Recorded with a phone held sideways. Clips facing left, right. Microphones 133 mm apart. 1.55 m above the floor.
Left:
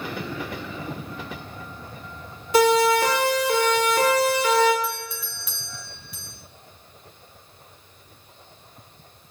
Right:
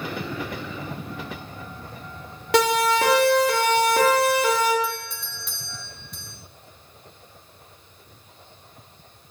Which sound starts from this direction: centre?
A doorbell, at 4.8 s.